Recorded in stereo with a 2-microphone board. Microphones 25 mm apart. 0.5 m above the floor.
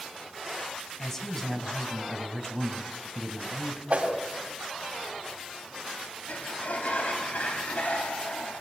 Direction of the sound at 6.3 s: 65° left (ahead or behind).